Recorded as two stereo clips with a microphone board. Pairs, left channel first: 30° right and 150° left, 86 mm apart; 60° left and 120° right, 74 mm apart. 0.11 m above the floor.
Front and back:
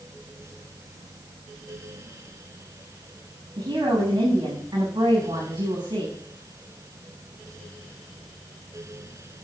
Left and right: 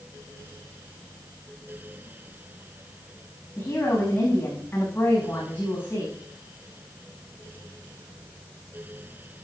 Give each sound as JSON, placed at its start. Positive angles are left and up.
{"t": 3.6, "sound": "a woman speaking", "azimuth_deg": 120, "distance_m": 8.5}